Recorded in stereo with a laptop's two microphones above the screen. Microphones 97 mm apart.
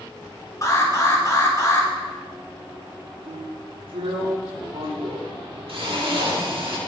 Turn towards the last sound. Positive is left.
turn(degrees=-90)